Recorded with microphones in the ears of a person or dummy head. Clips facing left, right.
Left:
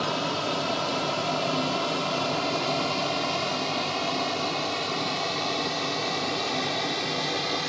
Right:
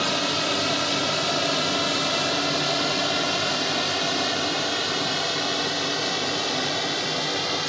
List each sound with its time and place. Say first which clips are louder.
0.0 s a drone: right 2 dB; 25° right (ahead or behind); by 7.7 s 5° right (ahead or behind)